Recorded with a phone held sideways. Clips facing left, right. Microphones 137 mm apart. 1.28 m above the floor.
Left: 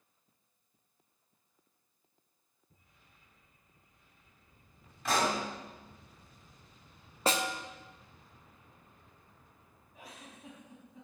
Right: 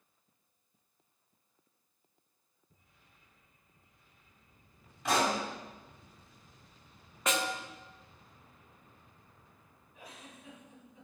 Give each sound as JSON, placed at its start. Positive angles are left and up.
{"t": 5.0, "sound": "a pop", "side_deg": -15, "distance_m": 2.5}
{"t": 7.3, "sound": "a snare drum", "side_deg": 30, "distance_m": 0.5}
{"t": 9.9, "sound": "a giggle", "side_deg": 40, "distance_m": 3.0}